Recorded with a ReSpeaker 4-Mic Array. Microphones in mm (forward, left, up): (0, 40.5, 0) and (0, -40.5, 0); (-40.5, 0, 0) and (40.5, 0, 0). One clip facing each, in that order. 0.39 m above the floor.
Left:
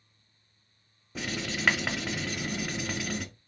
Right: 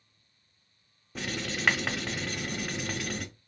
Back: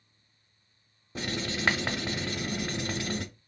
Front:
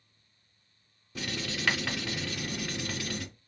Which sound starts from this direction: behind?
Writing, at 1.1 s.